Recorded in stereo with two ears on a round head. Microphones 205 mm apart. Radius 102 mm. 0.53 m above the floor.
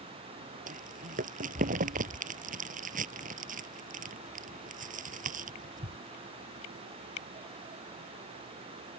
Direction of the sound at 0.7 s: 35° right (ahead or behind).